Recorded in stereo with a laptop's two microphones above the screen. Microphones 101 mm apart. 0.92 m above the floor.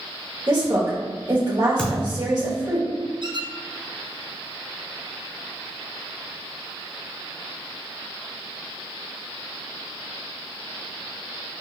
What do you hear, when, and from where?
0.5 s a woman speaking: 45° right (ahead or behind), 1.5 m
1.8 s a thud: 10° left (ahead or behind), 0.8 m
3.2 s a squeak: 45° right (ahead or behind), 0.6 m